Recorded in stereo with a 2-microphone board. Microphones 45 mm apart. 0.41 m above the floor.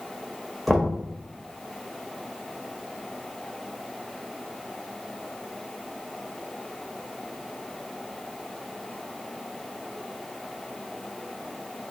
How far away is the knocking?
About 0.9 m.